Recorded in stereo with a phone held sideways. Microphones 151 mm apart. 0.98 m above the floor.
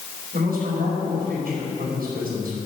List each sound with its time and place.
0.3 s a man speaking: 75° right (ahead or behind), 4.5 m